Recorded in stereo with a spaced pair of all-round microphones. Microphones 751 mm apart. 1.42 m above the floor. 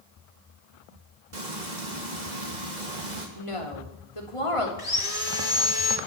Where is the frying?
70° right (ahead or behind), 3 m.